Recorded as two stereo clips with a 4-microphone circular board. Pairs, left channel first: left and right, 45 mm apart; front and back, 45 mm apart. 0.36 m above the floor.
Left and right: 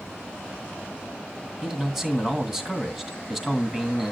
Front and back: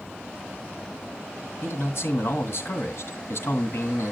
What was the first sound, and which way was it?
A man speaking, 15° right.